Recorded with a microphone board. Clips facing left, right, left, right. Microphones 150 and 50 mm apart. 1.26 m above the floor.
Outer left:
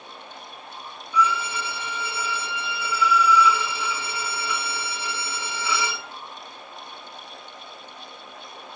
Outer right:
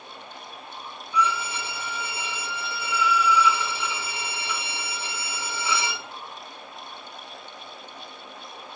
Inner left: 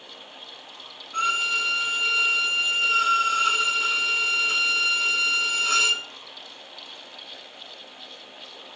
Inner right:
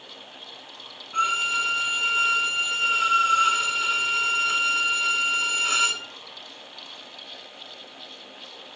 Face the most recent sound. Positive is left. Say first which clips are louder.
# outer left 2 dB, inner right 1 dB
turn(degrees=-20)  # may be behind; listen again after turning